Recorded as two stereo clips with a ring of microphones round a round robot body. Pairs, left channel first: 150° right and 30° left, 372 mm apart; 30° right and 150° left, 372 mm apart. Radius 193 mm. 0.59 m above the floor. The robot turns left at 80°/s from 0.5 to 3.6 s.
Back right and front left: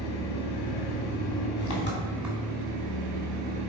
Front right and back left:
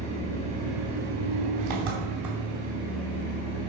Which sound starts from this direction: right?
An engine running, at 0.0 s.